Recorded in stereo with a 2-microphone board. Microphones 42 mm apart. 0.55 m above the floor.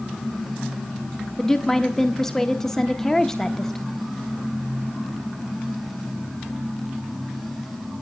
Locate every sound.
1.4 s a woman speaking: 10° left (ahead or behind), 0.8 m